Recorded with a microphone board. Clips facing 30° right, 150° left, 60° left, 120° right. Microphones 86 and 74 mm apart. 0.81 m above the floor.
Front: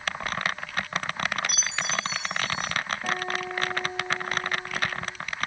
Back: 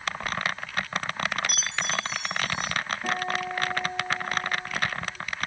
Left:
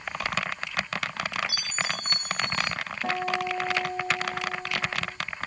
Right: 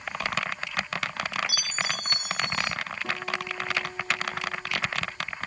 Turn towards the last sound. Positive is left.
turn(degrees=50)